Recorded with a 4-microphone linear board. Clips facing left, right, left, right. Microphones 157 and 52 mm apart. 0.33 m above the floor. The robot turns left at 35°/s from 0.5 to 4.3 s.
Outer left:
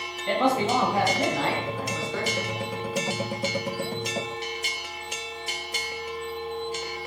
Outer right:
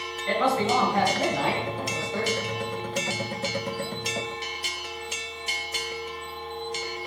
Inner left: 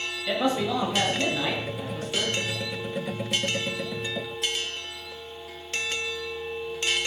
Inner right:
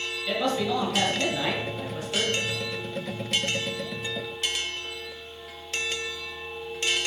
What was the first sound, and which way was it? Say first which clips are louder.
A man speaking: outer left 1 dB, inner left 1 dB; 25° left.